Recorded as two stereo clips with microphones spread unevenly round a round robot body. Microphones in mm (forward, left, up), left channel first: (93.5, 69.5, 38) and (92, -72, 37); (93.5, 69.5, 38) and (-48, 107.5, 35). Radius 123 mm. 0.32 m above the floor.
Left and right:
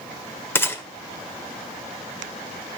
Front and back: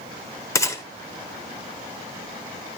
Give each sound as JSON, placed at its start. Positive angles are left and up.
{"t": 0.6, "sound": "a gunshot", "azimuth_deg": 30, "distance_m": 1.1}